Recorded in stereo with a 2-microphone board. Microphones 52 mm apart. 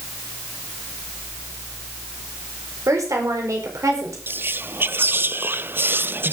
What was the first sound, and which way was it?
A woman speaking, 85° right.